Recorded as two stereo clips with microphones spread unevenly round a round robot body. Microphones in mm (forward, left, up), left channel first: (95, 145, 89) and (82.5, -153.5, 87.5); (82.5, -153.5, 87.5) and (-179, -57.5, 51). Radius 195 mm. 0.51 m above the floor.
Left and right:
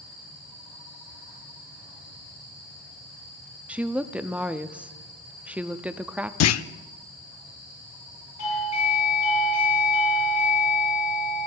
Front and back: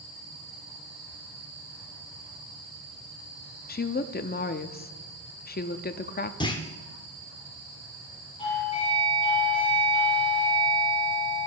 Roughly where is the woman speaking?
Ahead.